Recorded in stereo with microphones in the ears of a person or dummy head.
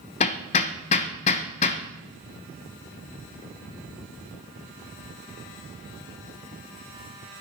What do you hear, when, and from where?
0.2 s hammering: 35° left (ahead or behind), 1.0 m